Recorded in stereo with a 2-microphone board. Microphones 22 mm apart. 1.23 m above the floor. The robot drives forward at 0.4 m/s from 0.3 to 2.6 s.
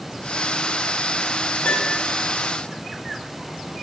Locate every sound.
1.6 s a piano: 80° left, 1.2 m; by 2.0 s 75° left (ahead or behind), 1.2 m